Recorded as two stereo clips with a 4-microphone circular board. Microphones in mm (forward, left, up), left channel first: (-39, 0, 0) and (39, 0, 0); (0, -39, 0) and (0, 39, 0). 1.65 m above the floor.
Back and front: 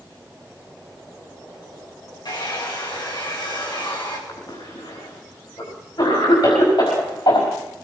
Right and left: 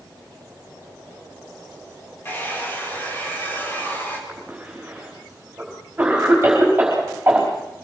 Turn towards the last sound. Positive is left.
turn(degrees=155)